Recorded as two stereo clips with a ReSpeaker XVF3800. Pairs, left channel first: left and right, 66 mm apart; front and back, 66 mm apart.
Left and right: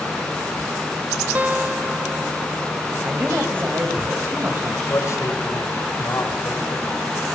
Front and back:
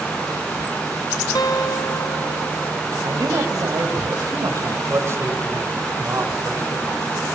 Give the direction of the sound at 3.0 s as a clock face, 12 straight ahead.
5 o'clock.